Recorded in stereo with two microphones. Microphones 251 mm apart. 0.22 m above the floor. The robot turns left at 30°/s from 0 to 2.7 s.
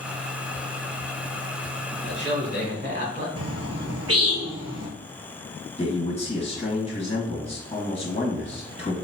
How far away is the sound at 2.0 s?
About 1.8 m.